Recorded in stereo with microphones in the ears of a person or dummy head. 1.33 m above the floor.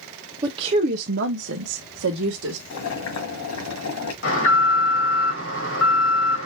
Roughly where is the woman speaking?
Right.